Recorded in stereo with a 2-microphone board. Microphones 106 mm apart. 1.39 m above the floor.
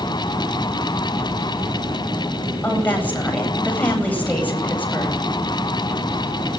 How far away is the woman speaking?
About 9 m.